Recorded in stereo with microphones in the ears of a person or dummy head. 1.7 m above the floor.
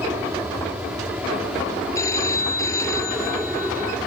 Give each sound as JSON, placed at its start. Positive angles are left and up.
{"t": 0.0, "sound": "an aircraft", "side_deg": -10}
{"t": 1.9, "sound": "a phone ringing", "side_deg": 15}